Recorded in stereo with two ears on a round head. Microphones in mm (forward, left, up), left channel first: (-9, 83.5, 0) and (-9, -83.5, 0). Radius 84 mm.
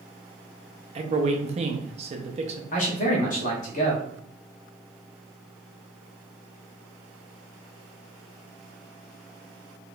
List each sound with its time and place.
0.9 s a man speaking: 35° right (ahead or behind), 0.5 m
2.7 s a man speaking: 40° left (ahead or behind), 1.0 m